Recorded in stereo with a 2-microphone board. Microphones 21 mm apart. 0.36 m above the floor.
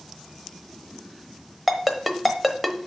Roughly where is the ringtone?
Centre.